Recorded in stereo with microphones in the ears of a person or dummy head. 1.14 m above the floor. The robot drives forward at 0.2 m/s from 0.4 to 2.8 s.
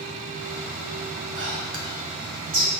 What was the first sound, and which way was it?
Whispering, 55° right (ahead or behind).